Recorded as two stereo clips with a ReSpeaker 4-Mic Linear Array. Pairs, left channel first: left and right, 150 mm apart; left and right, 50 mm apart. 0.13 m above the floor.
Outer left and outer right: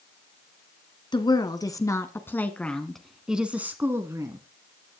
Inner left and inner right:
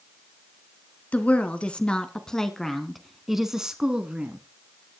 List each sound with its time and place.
1.1 s a woman speaking: 30° left (ahead or behind), 1.9 m; by 4.4 s 25° right (ahead or behind), 1.7 m